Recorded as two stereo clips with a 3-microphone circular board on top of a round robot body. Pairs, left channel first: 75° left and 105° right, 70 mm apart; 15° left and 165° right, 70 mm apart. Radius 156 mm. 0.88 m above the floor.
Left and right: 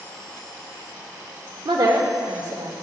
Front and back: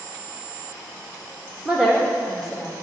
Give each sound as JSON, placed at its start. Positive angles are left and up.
{"t": 1.6, "sound": "a woman speaking", "azimuth_deg": -85, "distance_m": 1.4}